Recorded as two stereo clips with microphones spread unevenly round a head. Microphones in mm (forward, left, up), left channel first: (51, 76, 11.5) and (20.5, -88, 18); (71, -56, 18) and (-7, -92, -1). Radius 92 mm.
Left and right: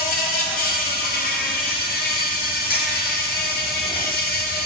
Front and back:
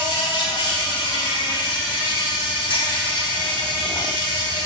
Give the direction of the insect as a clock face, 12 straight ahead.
10 o'clock.